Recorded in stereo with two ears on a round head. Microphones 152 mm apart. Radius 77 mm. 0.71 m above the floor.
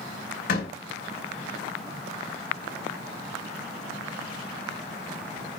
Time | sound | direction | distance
0.5 | a door slam | 65° left (ahead or behind) | 2.5 m